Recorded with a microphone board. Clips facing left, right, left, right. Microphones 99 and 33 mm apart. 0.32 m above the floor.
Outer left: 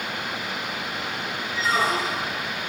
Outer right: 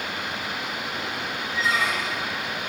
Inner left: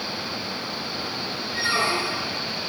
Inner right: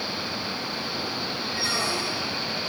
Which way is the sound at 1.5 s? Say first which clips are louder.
Outer left 2 dB, inner left 5 dB; 35° left (ahead or behind).